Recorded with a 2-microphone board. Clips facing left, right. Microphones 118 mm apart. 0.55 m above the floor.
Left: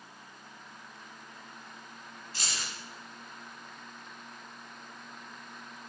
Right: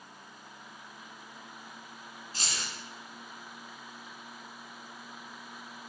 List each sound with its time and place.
2.3 s keys jangling: 40° right (ahead or behind), 1.8 m